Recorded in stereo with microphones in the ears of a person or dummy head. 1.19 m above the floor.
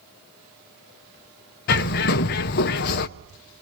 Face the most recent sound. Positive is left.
turn(degrees=55)  # may be behind; listen again after turning